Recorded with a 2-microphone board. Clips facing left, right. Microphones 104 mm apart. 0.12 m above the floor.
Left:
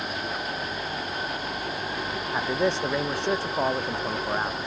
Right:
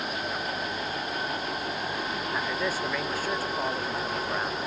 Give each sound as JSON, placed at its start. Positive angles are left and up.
{"t": 2.3, "sound": "a man speaking", "side_deg": 25}